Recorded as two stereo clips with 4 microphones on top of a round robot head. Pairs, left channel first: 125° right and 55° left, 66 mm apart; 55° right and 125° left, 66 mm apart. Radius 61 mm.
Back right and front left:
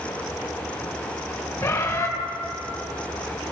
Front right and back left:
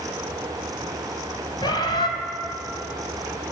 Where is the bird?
75° right, 2.5 m.